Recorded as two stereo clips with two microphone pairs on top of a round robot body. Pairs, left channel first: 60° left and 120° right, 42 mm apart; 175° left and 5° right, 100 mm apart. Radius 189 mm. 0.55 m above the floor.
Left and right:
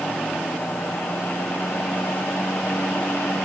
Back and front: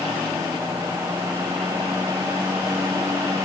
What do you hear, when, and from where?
Only background noise.